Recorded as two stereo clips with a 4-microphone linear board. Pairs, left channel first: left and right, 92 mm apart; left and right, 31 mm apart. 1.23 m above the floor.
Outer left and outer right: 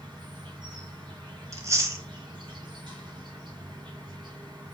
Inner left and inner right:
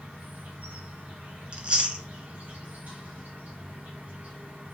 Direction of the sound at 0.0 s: 55° right (ahead or behind).